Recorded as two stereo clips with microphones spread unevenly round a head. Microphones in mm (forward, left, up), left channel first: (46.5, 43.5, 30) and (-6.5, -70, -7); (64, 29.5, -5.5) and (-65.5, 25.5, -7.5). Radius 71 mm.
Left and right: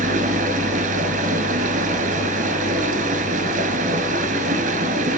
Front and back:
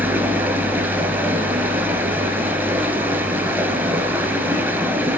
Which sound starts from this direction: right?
Running water, at 0.0 s.